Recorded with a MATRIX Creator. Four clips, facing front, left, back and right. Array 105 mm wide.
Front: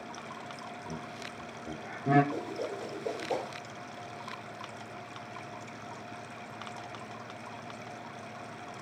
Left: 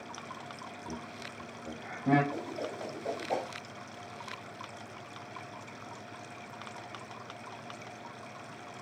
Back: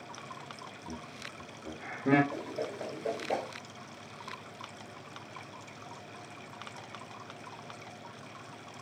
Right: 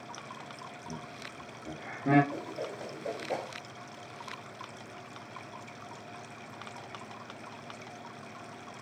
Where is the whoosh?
165° right, 1.9 m.